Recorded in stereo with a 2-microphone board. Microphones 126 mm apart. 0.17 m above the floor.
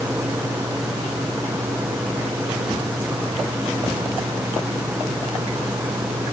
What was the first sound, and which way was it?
Only background noise.